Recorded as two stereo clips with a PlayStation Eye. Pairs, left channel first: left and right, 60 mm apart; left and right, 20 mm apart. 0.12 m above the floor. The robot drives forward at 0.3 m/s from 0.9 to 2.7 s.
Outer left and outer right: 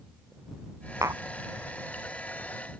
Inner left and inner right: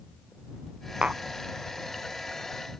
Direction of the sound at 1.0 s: 60° right (ahead or behind).